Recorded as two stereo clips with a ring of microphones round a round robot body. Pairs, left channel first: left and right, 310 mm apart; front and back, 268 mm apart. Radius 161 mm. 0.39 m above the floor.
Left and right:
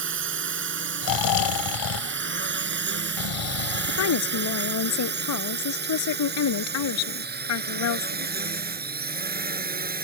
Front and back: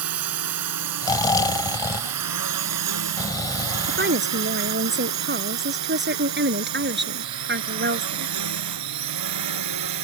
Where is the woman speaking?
130° left.